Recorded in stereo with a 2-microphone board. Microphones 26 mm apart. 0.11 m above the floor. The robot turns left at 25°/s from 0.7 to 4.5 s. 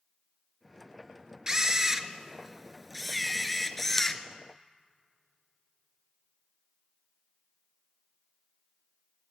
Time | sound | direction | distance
1.5 | a camera shutter | 135° right | 0.6 m